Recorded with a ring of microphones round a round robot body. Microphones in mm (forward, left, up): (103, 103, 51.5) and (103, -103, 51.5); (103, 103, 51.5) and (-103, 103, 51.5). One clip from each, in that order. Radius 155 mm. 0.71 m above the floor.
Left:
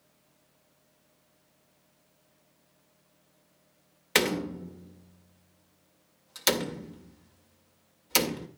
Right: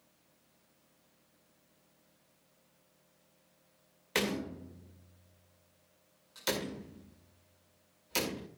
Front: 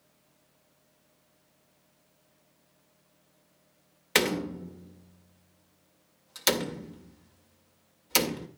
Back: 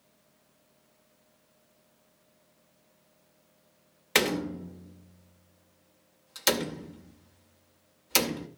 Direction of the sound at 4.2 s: 85° left.